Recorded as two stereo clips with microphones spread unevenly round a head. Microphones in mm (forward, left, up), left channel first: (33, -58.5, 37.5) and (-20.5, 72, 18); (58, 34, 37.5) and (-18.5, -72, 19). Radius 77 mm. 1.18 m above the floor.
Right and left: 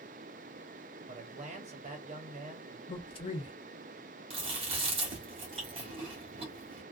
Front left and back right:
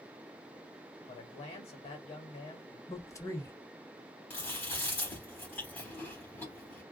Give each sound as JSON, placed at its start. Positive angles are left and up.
{"t": 1.1, "sound": "a man speaking", "azimuth_deg": 100, "distance_m": 1.0}
{"t": 2.9, "sound": "a man speaking", "azimuth_deg": -15, "distance_m": 0.9}
{"t": 4.3, "sound": "chewing", "azimuth_deg": 95, "distance_m": 1.1}